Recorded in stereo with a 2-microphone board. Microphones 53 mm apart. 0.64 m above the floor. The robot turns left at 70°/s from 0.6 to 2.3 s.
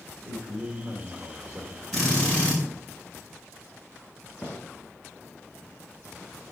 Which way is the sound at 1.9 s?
Centre (ahead or behind).